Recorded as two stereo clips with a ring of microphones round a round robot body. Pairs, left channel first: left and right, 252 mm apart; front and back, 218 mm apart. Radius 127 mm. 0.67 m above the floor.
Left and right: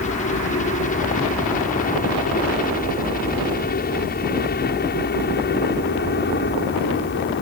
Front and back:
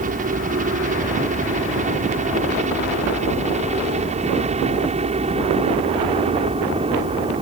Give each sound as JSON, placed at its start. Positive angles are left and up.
{"t": 0.0, "sound": "a helicopter", "azimuth_deg": 140}